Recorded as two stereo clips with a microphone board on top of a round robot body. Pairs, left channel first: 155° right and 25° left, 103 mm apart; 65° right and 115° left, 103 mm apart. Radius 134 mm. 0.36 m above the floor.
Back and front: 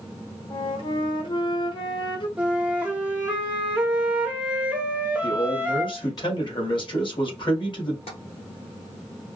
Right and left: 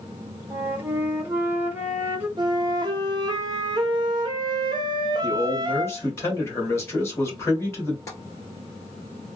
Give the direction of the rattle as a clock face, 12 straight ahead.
No rattle in this recording.